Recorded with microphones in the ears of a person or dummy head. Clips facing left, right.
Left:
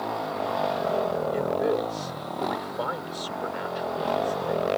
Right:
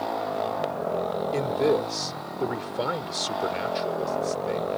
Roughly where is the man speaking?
Right.